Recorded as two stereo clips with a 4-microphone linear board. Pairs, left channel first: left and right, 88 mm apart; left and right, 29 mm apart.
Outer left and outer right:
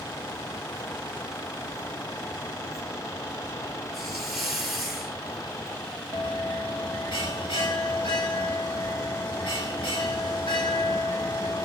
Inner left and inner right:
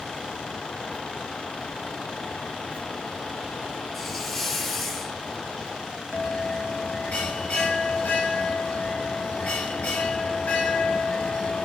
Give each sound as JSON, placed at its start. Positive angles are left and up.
{"t": 3.9, "sound": "a hiss", "side_deg": 0, "distance_m": 1.5}
{"t": 6.1, "sound": "a bell", "side_deg": 75, "distance_m": 1.9}